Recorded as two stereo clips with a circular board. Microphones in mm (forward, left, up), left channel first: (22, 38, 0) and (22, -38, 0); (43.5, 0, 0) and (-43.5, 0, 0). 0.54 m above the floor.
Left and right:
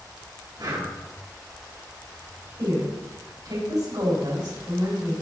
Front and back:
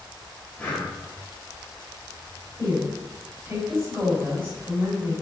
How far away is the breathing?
About 3 m.